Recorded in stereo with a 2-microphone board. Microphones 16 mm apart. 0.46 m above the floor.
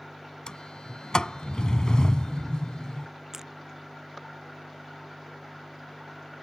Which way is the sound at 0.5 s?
65° left (ahead or behind).